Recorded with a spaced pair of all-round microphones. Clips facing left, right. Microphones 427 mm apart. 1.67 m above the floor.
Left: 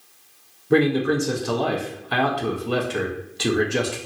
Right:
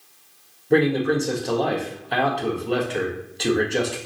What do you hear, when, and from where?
0.7 s a man speaking: 20° left (ahead or behind), 0.6 m